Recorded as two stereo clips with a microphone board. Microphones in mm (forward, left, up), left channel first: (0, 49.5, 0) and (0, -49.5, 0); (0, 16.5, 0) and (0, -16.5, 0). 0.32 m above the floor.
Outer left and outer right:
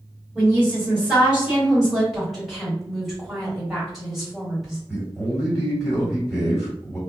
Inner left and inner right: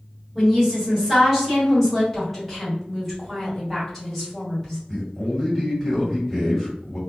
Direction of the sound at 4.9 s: 5° left (ahead or behind).